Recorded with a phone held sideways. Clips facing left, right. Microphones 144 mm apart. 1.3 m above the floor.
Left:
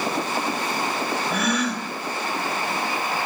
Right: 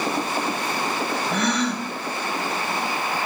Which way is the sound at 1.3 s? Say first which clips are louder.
Right 2 dB; 10° left (ahead or behind).